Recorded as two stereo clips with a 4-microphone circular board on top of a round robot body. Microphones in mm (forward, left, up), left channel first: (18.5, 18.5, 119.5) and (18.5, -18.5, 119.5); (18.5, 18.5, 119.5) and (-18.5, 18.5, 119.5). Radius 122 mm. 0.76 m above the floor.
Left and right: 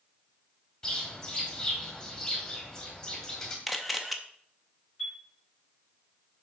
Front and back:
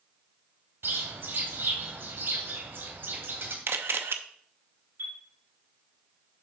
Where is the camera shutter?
Straight behind, 0.7 m.